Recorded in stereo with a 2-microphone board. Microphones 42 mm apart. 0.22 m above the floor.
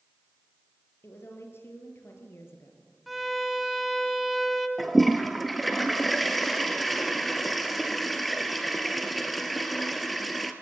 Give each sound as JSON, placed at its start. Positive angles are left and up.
{"t": 1.0, "sound": "a woman speaking", "side_deg": 75, "distance_m": 5.0}
{"t": 3.1, "sound": "a violin", "side_deg": 0, "distance_m": 1.6}
{"t": 4.8, "sound": "a toilet flushing", "side_deg": 0, "distance_m": 1.6}